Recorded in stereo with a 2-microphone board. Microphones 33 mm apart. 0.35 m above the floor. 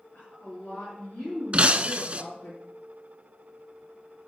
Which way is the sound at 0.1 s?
65° left (ahead or behind).